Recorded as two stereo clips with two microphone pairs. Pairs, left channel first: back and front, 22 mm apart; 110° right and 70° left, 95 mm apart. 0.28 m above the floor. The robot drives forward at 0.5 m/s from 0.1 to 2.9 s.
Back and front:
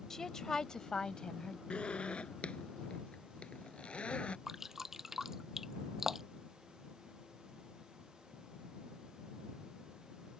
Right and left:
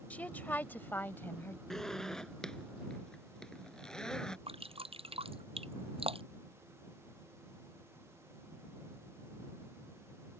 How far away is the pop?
No pop in this recording.